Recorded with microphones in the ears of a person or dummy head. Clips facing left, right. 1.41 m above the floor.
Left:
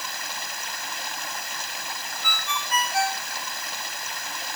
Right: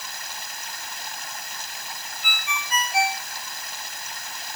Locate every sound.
0.0 s running water: 60° left (ahead or behind)
2.2 s a ringtone: 10° right (ahead or behind)